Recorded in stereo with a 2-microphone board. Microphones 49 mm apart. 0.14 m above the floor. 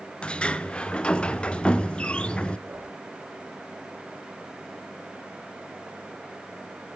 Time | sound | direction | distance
0.2 | a sliding door | 20° left (ahead or behind) | 0.5 m
2.7 | a whoosh | 50° right (ahead or behind) | 6.5 m